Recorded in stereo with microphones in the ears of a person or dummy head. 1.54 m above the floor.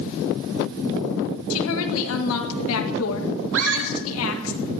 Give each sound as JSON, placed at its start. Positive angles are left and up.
{"t": 1.5, "sound": "a woman speaking", "side_deg": 75, "distance_m": 1.7}
{"t": 3.5, "sound": "a scream", "side_deg": -70, "distance_m": 1.9}